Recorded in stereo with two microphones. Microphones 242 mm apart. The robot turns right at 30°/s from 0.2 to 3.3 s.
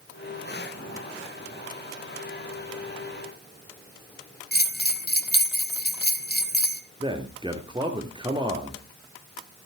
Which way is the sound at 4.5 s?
40° left (ahead or behind).